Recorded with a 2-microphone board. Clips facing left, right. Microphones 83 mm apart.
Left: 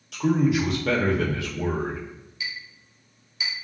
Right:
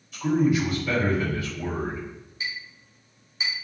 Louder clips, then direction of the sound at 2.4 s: Right 1 dB; 30° right (ahead or behind).